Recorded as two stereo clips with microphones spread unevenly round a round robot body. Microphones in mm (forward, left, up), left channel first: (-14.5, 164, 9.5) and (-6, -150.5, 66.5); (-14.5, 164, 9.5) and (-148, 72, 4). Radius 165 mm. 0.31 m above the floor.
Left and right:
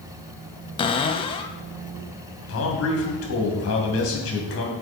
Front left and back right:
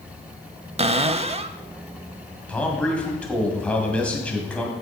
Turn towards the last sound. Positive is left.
turn(degrees=115)